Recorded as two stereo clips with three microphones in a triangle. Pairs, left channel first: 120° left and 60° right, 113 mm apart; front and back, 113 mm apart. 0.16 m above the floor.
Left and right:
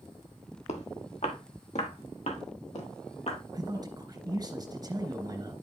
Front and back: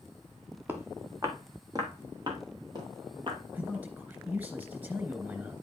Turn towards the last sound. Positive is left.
turn(degrees=-110)